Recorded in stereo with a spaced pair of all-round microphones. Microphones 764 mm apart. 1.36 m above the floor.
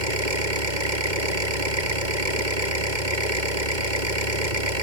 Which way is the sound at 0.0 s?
75° right (ahead or behind).